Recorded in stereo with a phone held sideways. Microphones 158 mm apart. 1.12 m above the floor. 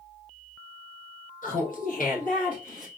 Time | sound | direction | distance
1.4 | laughter | 55° left (ahead or behind) | 0.9 m